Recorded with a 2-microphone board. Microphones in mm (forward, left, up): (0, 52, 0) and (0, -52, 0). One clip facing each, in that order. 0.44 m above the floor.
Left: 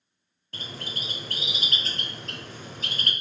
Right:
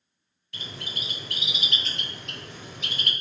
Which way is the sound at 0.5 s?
40° left (ahead or behind).